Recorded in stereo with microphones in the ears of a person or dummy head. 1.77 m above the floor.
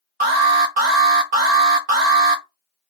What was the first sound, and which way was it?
An alarm, 35° right (ahead or behind).